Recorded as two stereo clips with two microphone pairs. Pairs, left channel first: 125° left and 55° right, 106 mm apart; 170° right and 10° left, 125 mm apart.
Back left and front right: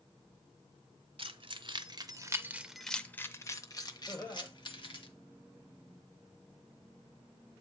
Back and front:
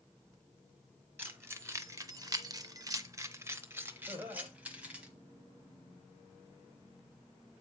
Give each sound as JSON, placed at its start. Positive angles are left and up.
{"t": 1.2, "sound": "keys jangling", "azimuth_deg": -60, "distance_m": 0.9}
{"t": 4.1, "sound": "laughter", "azimuth_deg": 65, "distance_m": 1.3}